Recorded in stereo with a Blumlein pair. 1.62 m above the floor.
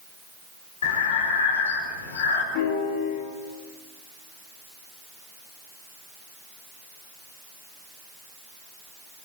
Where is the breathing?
60° left, 4.5 m.